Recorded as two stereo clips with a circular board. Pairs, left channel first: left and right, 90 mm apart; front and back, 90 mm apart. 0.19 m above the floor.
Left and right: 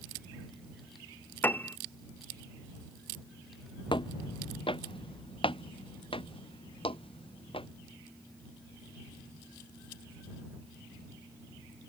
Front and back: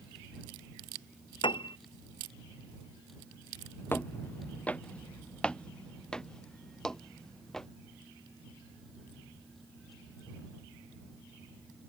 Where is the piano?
20° left.